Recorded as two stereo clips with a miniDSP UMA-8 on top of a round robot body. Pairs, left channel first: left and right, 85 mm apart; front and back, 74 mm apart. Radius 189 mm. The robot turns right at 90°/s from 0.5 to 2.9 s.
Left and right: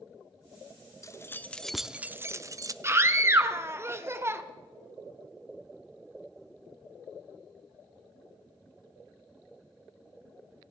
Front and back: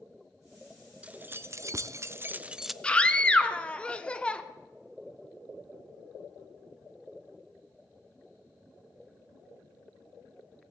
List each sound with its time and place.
1.0 s keys jangling: 115° left, 0.6 m; by 2.7 s 90° right, 0.6 m
2.8 s a scream: 70° right, 1.2 m; by 4.4 s 65° right, 1.2 m